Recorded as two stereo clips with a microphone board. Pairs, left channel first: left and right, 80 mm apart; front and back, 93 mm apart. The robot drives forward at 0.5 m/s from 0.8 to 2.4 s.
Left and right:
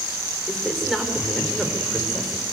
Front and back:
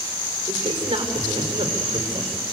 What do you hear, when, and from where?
0.5 s a man speaking: straight behind, 4 m